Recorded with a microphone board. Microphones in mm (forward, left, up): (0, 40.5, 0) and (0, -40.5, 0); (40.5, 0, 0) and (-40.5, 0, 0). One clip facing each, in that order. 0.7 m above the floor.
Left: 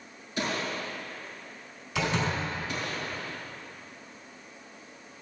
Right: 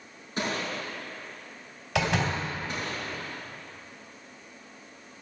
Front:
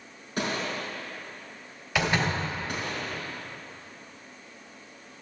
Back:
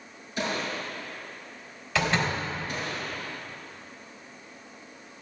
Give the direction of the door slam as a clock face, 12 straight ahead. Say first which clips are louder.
Right 2 dB, even; 3 o'clock.